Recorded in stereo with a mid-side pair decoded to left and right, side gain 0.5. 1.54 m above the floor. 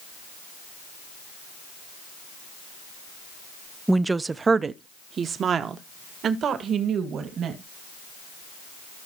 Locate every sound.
3.9 s a woman speaking: 10° right, 0.5 m; by 7.6 s 60° right, 2.5 m